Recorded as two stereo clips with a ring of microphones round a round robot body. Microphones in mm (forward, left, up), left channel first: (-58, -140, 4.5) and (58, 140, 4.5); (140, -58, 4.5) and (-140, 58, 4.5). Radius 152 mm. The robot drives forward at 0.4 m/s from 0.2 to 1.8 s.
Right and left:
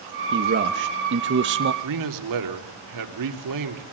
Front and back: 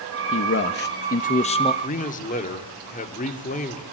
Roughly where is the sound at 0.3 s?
Ahead.